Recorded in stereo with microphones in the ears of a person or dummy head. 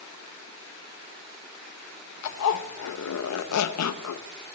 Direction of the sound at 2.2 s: 80° left.